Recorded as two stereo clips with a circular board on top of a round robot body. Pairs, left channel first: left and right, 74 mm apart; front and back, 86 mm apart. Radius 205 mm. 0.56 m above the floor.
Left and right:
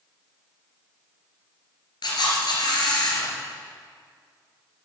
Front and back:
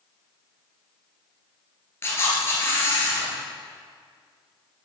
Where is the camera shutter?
65° left, 2.5 m.